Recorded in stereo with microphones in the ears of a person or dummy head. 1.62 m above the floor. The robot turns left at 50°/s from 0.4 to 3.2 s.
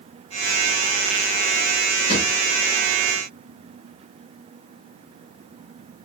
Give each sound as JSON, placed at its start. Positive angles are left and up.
{"t": 2.1, "sound": "a drawer", "side_deg": 30, "distance_m": 1.4}